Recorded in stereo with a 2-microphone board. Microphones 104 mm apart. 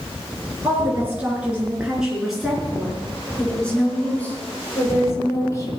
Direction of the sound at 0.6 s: 20° right (ahead or behind).